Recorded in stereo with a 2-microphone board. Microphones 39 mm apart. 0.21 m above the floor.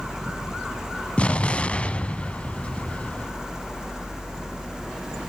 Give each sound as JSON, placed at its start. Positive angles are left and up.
{"t": 1.2, "sound": "an explosion", "side_deg": 35, "distance_m": 0.5}